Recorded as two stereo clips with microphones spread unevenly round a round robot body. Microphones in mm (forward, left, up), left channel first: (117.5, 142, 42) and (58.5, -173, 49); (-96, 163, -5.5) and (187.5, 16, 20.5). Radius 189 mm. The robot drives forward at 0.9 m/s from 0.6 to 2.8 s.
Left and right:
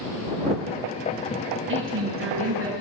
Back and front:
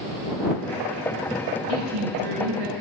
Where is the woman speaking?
50° right, 6.5 m; by 2.7 s 55° right, 6 m.